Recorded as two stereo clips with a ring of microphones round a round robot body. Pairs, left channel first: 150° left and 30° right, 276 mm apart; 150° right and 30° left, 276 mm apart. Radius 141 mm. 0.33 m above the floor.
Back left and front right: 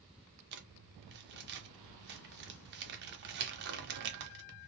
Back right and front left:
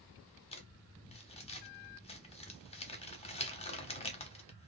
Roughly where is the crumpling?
Right.